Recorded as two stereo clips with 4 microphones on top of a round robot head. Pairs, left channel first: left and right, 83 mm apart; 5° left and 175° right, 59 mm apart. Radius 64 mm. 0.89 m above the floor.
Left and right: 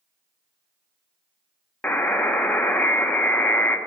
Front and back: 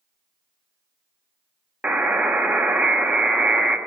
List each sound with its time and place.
1.8 s a buzzer: 150° left, 1.0 m